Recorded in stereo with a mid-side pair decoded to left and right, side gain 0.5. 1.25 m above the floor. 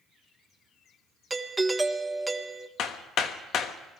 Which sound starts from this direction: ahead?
A doorbell, at 1.3 s.